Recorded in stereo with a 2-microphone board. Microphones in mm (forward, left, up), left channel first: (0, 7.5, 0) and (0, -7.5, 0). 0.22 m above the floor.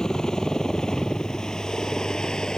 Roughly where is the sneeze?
No sneeze in this recording.